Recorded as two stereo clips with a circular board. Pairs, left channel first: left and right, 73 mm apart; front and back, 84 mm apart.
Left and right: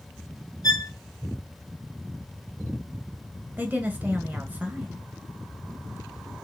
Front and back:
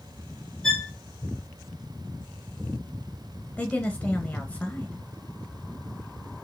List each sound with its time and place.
0.6 s a violin: 80° left, 1.1 m
3.6 s a woman speaking: 55° right, 1.3 m